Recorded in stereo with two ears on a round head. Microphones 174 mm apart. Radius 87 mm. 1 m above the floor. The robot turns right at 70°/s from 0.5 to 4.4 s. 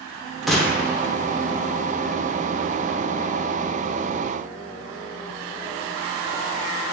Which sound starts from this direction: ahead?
A gunshot, at 0.5 s.